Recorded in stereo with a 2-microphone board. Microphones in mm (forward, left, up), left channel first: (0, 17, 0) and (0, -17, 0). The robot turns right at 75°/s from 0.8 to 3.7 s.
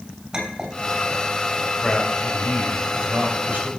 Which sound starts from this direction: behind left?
A man speaking, at 1.8 s.